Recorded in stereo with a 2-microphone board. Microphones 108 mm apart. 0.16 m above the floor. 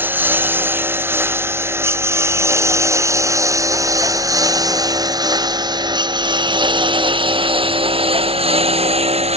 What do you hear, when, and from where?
0.0 s a lawn mower: 20° right (ahead or behind); by 9.4 s 70° right (ahead or behind)